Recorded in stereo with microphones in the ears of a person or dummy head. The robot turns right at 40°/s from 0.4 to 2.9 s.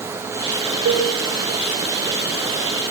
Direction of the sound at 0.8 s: 85° right.